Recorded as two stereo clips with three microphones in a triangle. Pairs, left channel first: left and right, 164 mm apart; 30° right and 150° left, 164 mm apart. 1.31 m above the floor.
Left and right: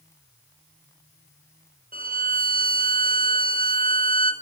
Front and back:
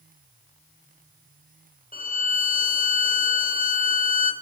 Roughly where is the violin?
Ahead right.